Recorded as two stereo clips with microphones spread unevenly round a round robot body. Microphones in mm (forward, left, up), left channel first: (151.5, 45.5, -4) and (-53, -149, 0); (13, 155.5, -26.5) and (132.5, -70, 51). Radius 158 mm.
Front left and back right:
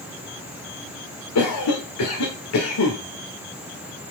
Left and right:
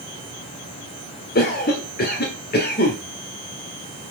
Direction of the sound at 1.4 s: 80° left.